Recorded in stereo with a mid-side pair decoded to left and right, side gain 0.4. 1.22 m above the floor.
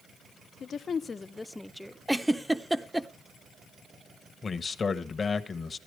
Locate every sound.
0.6 s a woman speaking: 65° left, 0.6 m; by 2.0 s 5° right, 0.7 m
2.1 s a giggle: 5° right, 0.6 m
4.4 s a man speaking: 40° left, 1.0 m